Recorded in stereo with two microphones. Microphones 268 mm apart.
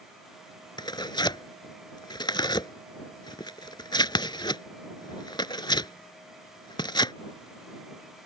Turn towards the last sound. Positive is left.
turn(degrees=15)  # may be behind; listen again after turning